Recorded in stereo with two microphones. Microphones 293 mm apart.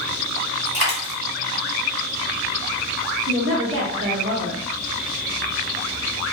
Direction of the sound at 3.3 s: 50° right (ahead or behind).